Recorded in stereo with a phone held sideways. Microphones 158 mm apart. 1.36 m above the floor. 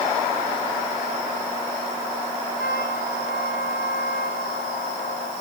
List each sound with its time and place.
2.6 s a trumpet: 90° left